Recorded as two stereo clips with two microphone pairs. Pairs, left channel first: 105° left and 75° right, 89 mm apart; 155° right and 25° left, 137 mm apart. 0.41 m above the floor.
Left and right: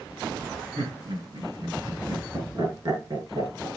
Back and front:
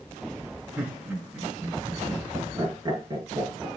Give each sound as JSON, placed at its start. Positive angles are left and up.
{"t": 0.8, "sound": "laughter", "azimuth_deg": -55, "distance_m": 4.5}